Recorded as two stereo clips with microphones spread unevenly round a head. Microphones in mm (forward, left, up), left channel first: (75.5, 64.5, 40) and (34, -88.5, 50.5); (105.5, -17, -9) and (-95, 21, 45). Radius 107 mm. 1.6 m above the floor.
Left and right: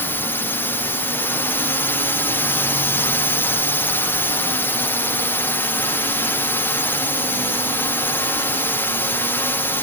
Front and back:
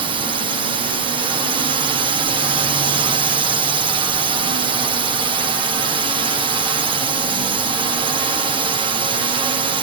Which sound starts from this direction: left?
A drone, at 0.0 s.